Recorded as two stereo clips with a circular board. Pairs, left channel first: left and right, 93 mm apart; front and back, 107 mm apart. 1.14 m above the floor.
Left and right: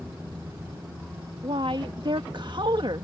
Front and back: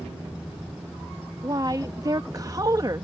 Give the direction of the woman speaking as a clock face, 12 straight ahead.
4 o'clock.